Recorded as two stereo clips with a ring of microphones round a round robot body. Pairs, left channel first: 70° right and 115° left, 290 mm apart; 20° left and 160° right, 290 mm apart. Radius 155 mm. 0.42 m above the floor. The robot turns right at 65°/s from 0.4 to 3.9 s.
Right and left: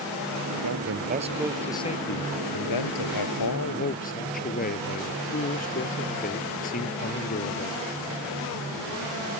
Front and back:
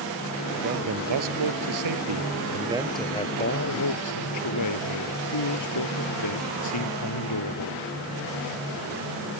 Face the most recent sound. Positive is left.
turn(degrees=-5)